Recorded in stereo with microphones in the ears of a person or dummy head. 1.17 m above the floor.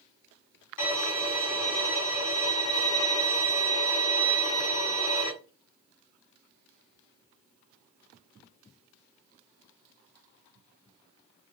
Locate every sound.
0.8 s a violin: 75° left (ahead or behind), 2.5 m